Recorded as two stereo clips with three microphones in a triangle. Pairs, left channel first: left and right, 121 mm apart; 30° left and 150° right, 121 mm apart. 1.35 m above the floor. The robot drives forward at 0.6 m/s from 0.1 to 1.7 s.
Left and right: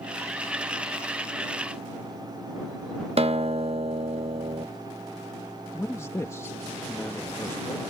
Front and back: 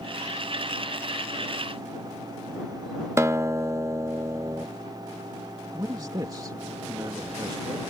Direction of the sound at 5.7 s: 155° left.